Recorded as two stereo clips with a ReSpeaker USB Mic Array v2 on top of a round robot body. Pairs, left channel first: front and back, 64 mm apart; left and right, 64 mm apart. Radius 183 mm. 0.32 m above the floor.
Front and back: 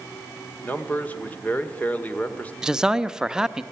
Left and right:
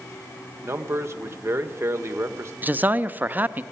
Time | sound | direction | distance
0.6 | a man speaking | 60° right | 1.9 m
2.6 | a man speaking | 110° right | 1.0 m